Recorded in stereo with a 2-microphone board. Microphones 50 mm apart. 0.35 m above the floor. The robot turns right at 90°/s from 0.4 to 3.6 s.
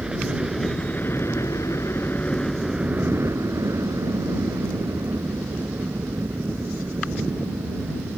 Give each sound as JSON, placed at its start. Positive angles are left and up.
{"t": 0.0, "sound": "a helicopter", "azimuth_deg": -15}